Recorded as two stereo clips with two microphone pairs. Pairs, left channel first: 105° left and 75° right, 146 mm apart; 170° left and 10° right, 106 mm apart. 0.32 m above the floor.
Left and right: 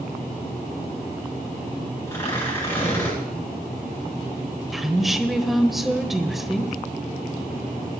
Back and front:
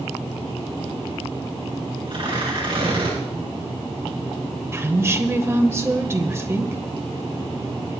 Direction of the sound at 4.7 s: 15° left.